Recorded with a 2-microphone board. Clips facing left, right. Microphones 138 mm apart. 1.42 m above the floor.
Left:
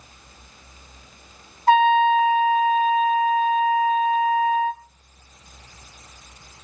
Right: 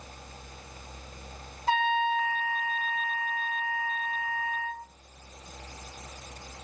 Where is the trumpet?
55° left (ahead or behind), 2.5 m.